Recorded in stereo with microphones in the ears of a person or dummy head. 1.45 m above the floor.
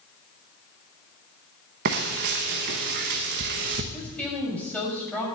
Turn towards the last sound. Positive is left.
turn(degrees=5)  # may be behind; listen again after turning